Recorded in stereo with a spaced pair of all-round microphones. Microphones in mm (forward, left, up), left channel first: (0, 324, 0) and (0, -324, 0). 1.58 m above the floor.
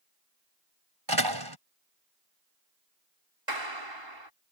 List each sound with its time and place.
1.1 s a door slam: 35° right (ahead or behind)
3.5 s a clap: 40° right (ahead or behind)